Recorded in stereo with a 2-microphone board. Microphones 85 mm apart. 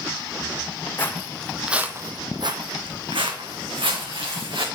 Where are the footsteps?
25° left (ahead or behind), 1.0 m; by 4.7 s 80° right, 2.5 m.